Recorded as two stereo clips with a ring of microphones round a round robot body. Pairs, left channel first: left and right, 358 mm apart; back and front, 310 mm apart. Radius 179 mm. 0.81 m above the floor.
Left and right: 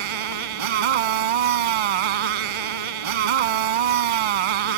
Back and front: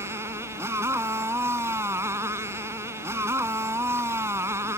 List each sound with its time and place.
0.0 s a motorcycle: 85° right